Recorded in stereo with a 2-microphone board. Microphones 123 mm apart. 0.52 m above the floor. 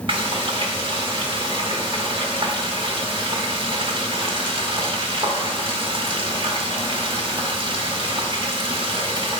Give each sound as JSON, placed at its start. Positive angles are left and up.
{"t": 0.1, "sound": "frying", "side_deg": -45, "distance_m": 0.8}